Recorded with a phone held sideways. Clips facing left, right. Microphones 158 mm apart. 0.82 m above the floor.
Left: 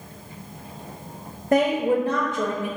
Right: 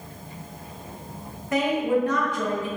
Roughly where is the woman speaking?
Left.